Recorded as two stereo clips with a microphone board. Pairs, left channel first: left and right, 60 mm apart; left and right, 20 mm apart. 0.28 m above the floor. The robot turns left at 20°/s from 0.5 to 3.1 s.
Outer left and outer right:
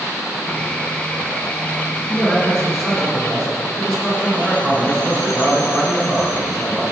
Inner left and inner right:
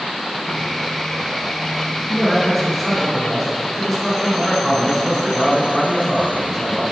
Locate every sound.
2.1 s a man speaking: 10° left (ahead or behind), 3.5 m; by 6.8 s 5° right (ahead or behind), 3.5 m